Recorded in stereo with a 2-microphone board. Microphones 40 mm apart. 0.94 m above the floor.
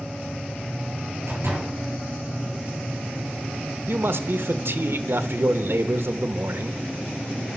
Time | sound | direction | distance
1.3 | a door slam | 75° right (ahead or behind) | 6 m
3.9 | a man speaking | 65° right (ahead or behind) | 0.9 m